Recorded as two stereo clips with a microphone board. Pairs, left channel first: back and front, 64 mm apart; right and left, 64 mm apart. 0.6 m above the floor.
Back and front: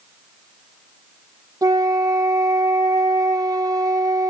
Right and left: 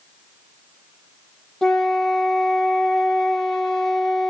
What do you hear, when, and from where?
1.6 s a flute: 10° right, 0.9 m